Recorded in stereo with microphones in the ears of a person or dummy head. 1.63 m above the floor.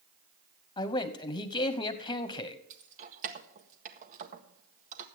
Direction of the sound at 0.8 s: 20° left (ahead or behind).